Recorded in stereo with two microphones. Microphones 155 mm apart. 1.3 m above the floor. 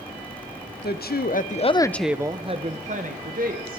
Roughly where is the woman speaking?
Left.